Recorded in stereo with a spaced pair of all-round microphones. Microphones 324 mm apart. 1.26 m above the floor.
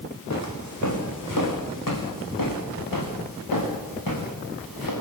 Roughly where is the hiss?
No hiss in this recording.